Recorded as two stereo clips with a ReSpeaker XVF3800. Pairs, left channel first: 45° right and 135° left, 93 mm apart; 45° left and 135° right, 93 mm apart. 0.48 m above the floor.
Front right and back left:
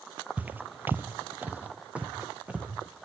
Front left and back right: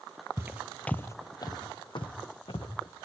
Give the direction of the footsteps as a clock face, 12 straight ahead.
6 o'clock.